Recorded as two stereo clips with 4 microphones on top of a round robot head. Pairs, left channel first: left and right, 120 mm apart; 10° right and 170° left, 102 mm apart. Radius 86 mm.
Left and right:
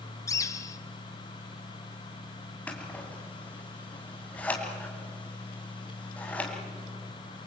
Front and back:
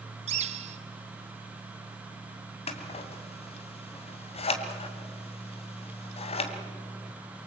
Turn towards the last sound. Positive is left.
turn(degrees=10)